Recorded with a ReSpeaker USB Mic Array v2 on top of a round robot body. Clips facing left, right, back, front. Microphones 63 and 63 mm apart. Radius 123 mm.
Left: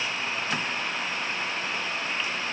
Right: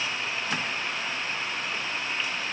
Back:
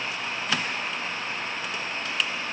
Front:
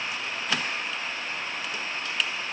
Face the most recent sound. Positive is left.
No sound to turn to.